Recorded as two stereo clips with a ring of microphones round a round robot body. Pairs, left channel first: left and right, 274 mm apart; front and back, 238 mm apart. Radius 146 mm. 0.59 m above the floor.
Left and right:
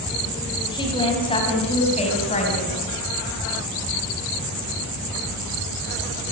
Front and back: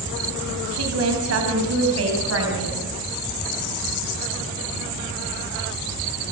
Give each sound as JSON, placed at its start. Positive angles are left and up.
{"t": 0.7, "sound": "a woman speaking", "azimuth_deg": 165, "distance_m": 5.0}